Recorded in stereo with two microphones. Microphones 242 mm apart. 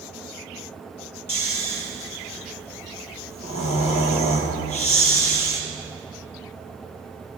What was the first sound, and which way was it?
Snoring, 70° left (ahead or behind).